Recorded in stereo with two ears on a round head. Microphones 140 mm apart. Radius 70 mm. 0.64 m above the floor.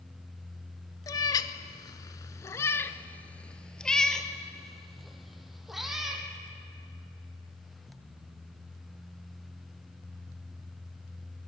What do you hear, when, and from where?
1.1 s a cat meowing: 25° left (ahead or behind), 0.8 m; by 6.2 s centre (ahead or behind), 2 m